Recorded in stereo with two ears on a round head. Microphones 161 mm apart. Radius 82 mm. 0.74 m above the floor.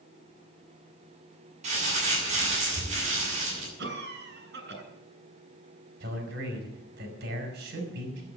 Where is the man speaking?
65° right (ahead or behind), 4.5 m.